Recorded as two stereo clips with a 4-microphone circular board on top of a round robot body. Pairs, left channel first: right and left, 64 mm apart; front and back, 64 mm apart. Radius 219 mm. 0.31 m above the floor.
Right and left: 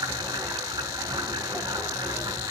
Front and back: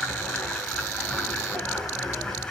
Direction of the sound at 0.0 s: 80° left.